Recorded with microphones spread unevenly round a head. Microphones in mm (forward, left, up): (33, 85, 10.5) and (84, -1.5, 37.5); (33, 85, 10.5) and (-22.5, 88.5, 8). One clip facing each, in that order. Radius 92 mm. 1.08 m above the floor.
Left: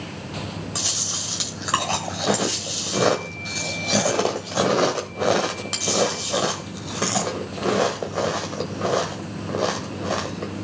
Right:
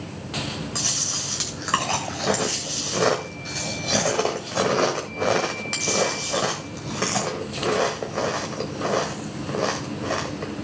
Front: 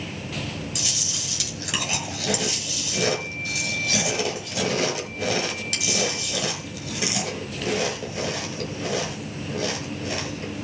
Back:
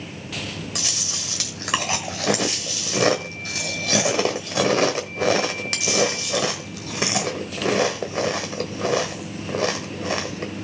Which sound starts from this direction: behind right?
Chewing, at 0.8 s.